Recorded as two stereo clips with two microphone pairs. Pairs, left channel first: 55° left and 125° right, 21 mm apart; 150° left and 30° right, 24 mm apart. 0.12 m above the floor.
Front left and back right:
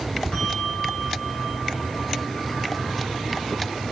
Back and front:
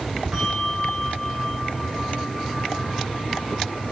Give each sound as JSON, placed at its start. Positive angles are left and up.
{"t": 0.3, "sound": "a bell", "azimuth_deg": 45, "distance_m": 7.5}